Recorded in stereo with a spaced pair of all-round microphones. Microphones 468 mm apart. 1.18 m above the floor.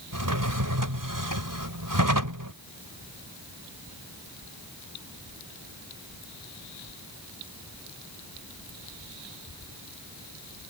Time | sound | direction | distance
0.1 | a drawer | 45° right (ahead or behind) | ?